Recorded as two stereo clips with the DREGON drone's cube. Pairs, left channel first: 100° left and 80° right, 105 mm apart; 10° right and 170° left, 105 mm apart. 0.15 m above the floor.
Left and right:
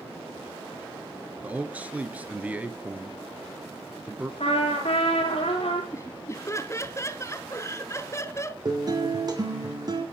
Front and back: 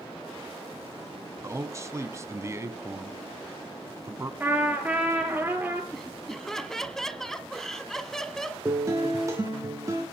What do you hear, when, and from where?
1.4 s a man speaking: 145° right, 1.6 m
4.4 s a trumpet: 95° left, 3.5 m
5.9 s laughter: 70° left, 1.2 m
8.7 s a guitar: 130° right, 4 m